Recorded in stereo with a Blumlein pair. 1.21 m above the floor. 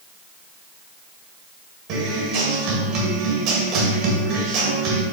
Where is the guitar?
45° right, 2 m.